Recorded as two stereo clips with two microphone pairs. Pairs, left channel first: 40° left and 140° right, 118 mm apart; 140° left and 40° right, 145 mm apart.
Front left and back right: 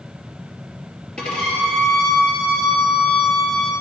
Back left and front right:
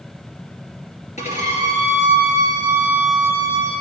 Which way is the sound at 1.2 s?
120° left.